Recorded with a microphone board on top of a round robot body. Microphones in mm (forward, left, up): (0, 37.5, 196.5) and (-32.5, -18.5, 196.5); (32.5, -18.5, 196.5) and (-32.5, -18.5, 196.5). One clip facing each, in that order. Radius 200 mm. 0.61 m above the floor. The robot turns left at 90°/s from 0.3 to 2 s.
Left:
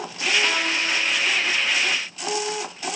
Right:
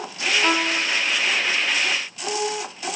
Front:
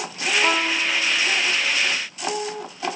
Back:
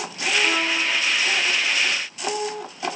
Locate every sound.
0.4 s a violin: 50° right, 1.2 m; by 0.8 s 85° right, 1.2 m